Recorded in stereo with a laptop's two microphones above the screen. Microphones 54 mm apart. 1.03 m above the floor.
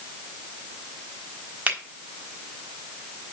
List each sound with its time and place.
1.7 s a finger snap: 30° right (ahead or behind), 4 m